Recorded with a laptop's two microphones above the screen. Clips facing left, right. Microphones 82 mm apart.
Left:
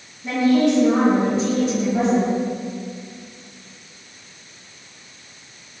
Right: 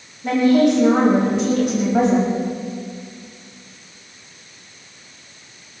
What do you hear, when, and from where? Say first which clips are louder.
0.2 s a woman speaking: right 2 dB; 70° right (ahead or behind), 6.5 m